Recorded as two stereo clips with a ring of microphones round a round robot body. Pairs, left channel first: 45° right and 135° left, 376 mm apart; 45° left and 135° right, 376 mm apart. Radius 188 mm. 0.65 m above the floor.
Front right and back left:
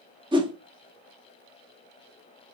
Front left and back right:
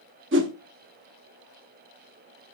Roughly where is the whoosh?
Behind right.